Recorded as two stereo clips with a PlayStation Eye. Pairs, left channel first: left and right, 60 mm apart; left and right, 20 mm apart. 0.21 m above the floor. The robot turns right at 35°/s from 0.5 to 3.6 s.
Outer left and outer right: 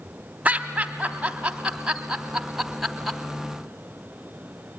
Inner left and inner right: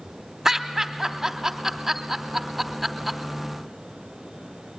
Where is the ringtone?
No ringtone in this recording.